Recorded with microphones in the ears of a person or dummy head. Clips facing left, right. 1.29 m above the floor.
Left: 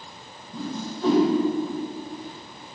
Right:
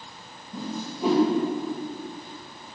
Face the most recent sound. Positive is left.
turn(degrees=-5)  # may be behind; listen again after turning